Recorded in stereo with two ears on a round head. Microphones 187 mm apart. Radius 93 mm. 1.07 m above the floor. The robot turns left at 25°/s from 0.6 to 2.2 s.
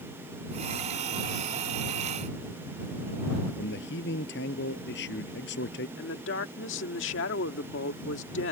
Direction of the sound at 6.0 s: 65° left (ahead or behind).